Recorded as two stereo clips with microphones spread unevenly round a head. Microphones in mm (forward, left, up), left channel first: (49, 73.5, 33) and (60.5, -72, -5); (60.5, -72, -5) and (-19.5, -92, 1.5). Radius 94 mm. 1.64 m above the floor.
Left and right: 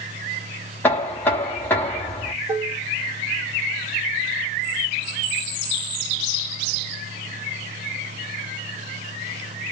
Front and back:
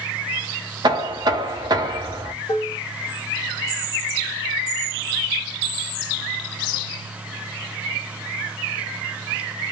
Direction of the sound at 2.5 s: Straight ahead.